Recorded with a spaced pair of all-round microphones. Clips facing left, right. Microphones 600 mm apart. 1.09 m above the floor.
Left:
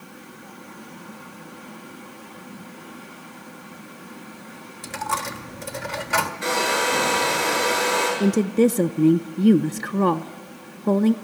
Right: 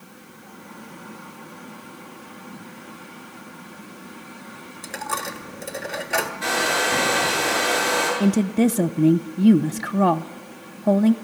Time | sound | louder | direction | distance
4.8 | a dropped coin | left 1 dB | 30° left (ahead or behind) | 1.4 m
6.4 | a hair dryer | left 3 dB | 20° right (ahead or behind) | 8 m
8.2 | a woman speaking | left 1 dB | 10° right (ahead or behind) | 0.5 m